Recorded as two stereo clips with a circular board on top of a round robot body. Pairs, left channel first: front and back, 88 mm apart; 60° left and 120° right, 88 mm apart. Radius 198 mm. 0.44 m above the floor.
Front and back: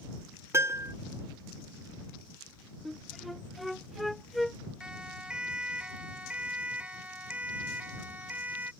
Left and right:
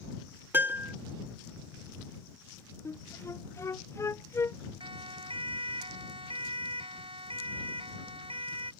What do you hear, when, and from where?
0.5 s a piano: 165° right
2.9 s a flute: 90° left
4.8 s a siren: 100° right; by 8.7 s 110° right